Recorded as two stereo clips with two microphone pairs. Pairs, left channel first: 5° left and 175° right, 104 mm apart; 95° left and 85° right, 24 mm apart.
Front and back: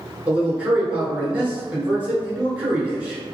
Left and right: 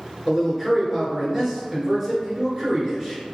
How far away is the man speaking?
About 1.3 m.